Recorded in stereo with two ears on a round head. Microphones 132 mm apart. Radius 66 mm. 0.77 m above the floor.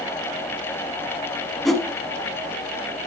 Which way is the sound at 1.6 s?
Centre (ahead or behind).